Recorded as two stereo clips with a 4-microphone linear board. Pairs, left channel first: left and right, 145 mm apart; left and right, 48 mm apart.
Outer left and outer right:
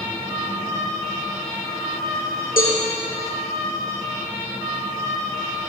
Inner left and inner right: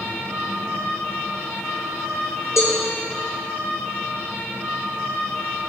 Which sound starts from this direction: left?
A cowbell, at 2.6 s.